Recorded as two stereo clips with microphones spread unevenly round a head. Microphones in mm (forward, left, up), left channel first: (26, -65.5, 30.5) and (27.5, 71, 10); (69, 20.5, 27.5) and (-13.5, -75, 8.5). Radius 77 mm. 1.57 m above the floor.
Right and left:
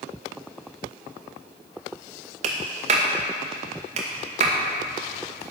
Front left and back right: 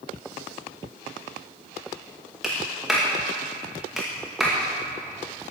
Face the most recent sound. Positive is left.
turn(degrees=140)